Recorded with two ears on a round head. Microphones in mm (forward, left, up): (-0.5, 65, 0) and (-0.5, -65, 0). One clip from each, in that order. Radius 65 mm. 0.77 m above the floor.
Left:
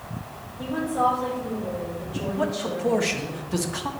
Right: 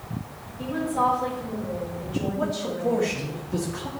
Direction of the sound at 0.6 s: 5° right (ahead or behind).